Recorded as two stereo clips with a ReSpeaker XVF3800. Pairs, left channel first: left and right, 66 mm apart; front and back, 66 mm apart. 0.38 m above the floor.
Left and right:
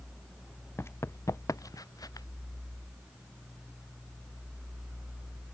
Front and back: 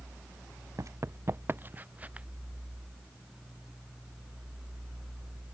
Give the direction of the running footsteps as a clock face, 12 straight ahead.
7 o'clock.